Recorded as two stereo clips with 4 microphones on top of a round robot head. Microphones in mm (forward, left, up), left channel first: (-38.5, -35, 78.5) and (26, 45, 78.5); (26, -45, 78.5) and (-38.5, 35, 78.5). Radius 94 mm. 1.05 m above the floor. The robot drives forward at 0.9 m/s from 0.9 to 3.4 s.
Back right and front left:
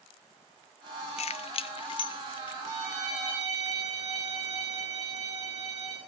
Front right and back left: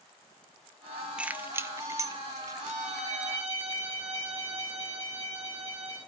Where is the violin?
105° left, 8.5 m; by 6.0 s 110° left, 9 m.